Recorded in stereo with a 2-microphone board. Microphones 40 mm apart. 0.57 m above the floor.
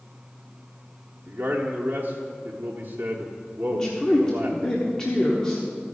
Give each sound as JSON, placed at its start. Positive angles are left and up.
{"t": 1.3, "sound": "a man speaking", "side_deg": -45, "distance_m": 0.9}
{"t": 3.7, "sound": "a man speaking", "side_deg": 15, "distance_m": 1.0}